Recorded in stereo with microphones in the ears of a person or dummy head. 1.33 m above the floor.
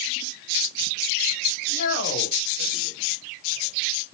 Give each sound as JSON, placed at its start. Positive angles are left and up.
{"t": 1.7, "sound": "a man speaking", "side_deg": 55, "distance_m": 1.1}